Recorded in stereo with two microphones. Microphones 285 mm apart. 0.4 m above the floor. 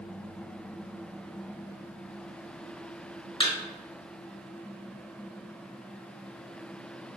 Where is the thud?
20° left (ahead or behind), 0.6 m.